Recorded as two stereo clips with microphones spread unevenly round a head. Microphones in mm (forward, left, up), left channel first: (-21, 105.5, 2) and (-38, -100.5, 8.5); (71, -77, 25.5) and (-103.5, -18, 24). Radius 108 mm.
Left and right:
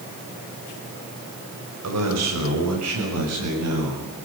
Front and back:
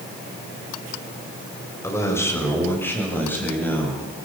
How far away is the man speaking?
About 6 m.